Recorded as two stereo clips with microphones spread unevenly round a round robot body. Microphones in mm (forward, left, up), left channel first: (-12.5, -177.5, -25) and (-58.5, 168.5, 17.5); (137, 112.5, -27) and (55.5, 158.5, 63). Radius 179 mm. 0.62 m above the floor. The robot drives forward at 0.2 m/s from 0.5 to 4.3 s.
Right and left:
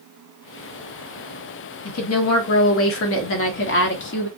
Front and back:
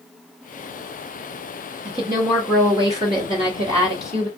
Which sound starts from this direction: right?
A woman speaking, at 1.9 s.